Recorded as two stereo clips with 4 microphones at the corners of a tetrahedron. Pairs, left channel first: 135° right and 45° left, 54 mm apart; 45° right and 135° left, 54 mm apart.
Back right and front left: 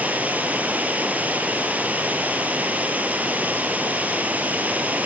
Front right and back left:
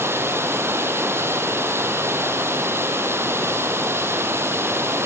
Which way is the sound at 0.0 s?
100° left.